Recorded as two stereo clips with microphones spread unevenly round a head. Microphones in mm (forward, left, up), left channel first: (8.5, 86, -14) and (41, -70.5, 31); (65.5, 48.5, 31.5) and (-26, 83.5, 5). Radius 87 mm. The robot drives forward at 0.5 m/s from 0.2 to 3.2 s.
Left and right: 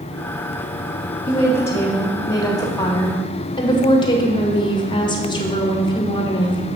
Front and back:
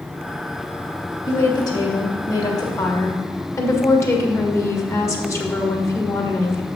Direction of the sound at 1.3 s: 25° left.